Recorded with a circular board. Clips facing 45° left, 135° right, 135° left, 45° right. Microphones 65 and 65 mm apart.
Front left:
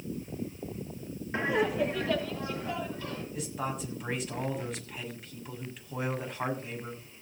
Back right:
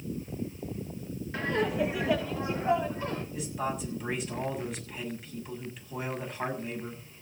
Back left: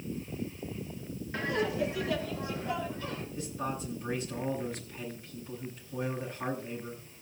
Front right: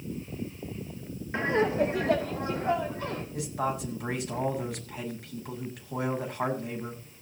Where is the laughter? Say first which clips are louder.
Front left 1 dB, front right 5 dB; 5° right, 1.1 m; by 3.2 s 80° right, 2.5 m.